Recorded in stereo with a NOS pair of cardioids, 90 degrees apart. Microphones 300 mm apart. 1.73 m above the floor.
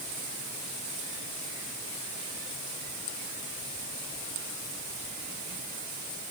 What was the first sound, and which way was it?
Only background noise.